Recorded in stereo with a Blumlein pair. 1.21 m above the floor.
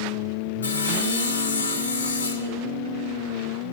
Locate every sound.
0.6 s sawing: 70° left, 1.0 m